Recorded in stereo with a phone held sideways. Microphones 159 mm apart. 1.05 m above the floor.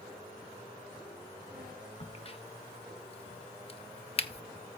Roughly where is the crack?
Left.